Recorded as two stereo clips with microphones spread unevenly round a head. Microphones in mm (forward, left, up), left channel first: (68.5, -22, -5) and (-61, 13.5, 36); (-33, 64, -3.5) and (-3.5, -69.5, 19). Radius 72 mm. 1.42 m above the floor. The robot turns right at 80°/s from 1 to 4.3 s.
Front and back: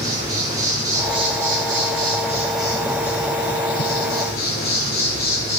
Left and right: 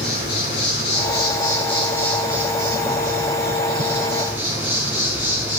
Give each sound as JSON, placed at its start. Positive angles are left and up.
{"t": 0.0, "sound": "an insect", "azimuth_deg": 100, "distance_m": 6.5}